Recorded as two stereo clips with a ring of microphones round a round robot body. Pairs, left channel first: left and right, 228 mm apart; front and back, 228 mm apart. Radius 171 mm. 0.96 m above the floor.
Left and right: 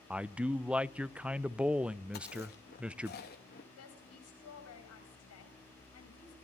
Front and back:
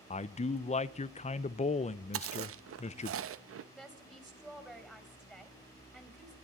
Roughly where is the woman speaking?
Left.